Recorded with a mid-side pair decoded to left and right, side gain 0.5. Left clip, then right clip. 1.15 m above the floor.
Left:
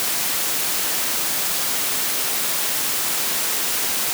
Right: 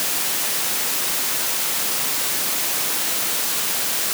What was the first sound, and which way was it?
Only background noise.